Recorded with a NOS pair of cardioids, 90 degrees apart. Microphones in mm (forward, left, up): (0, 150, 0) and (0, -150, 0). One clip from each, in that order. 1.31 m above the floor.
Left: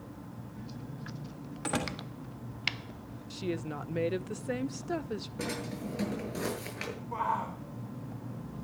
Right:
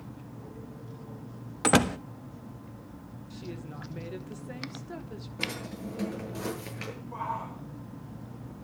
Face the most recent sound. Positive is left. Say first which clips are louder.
# left 3 dB
turn(degrees=35)